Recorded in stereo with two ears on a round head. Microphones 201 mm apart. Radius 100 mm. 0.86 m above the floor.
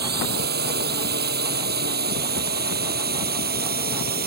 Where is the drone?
45° right (ahead or behind).